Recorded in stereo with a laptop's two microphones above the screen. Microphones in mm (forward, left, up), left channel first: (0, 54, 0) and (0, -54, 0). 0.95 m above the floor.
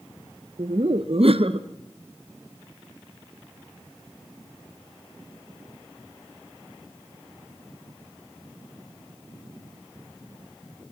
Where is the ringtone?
No ringtone in this recording.